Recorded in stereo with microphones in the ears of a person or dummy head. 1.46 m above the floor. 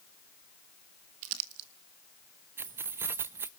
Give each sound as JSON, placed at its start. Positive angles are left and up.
{"t": 1.2, "sound": "crumpling", "side_deg": -65, "distance_m": 1.4}
{"t": 2.6, "sound": "keys jangling", "side_deg": -15, "distance_m": 0.7}